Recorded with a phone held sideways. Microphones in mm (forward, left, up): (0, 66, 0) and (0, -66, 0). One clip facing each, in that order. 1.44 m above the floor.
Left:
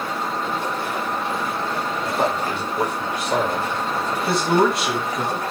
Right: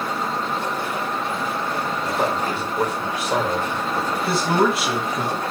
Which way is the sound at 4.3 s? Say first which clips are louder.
Left 2 dB; centre (ahead or behind).